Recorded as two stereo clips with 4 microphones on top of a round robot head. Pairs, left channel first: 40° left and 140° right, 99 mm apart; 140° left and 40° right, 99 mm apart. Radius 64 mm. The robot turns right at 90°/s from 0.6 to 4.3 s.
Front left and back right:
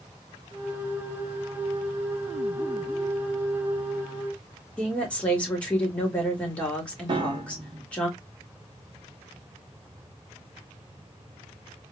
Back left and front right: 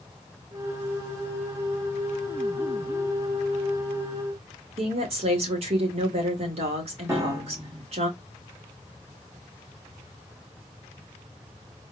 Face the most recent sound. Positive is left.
turn(degrees=-100)